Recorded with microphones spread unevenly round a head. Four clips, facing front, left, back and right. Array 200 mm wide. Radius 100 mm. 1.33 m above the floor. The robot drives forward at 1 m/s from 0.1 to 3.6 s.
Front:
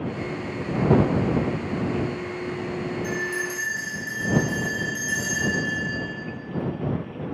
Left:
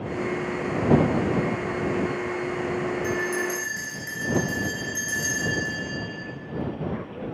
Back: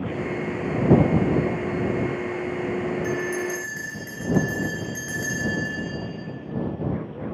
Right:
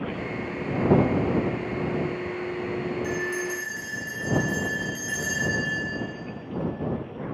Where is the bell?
170° left, 2.0 m; by 5.8 s 175° left, 2.5 m.